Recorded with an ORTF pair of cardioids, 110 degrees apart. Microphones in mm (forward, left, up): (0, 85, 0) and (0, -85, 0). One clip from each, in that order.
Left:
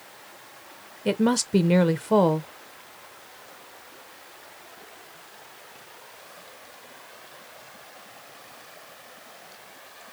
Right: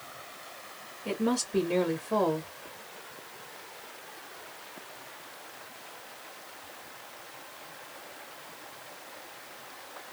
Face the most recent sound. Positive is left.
turn(degrees=65)